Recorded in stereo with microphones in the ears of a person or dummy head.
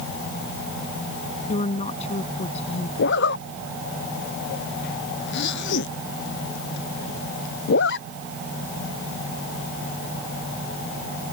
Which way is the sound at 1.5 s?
40° left (ahead or behind).